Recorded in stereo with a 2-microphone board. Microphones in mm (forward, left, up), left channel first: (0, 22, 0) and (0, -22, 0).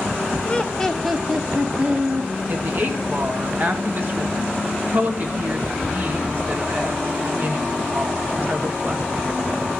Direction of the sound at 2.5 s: 45° right (ahead or behind).